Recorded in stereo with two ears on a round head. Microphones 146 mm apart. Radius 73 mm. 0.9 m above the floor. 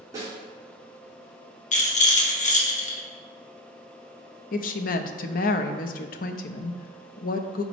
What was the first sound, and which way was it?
A snare drum, 20° right (ahead or behind).